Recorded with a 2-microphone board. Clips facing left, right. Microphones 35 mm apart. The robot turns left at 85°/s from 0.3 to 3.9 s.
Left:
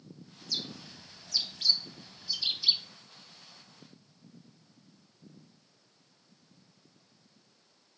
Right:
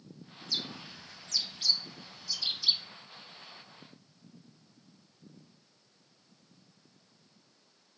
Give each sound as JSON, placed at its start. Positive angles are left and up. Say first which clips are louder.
{"t": 0.4, "sound": "a bird", "louder": "right 1 dB", "side_deg": -20, "distance_m": 0.7}